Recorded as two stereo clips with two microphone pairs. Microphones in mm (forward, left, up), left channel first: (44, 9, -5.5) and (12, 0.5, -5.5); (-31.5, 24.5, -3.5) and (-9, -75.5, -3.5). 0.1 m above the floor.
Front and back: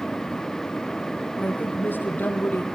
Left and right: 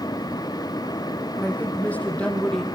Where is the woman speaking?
30° left, 4.5 m; by 2.6 s 15° left, 2.5 m.